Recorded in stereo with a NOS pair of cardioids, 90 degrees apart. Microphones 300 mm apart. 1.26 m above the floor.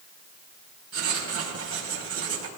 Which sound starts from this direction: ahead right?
Writing, at 0.9 s.